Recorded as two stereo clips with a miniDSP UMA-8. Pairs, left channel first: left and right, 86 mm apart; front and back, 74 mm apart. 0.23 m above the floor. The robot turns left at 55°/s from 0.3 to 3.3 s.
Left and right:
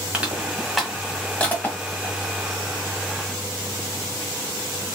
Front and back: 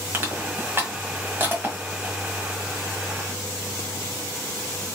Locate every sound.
0.1 s crushing: 150° right, 1.6 m; by 2.1 s 110° left, 1.6 m